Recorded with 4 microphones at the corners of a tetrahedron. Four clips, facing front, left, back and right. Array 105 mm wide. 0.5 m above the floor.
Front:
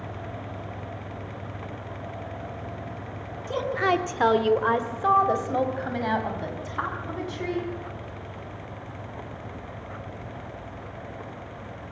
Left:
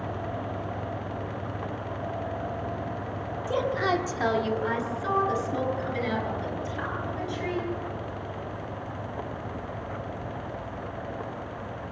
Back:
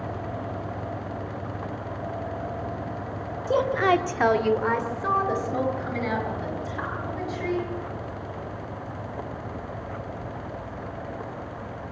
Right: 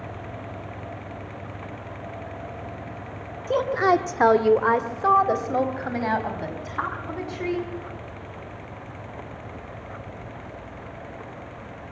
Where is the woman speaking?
160° right, 1.3 m; by 7.7 s 55° right, 6.5 m.